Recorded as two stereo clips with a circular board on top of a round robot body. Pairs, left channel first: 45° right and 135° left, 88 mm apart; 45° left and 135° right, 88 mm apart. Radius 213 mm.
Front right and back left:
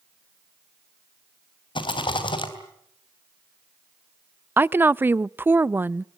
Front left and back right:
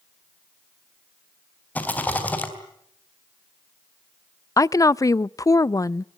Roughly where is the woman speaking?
Left.